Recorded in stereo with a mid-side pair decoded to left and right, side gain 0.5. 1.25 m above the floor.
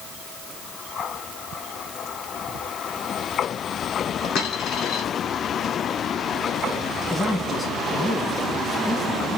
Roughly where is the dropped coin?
Left.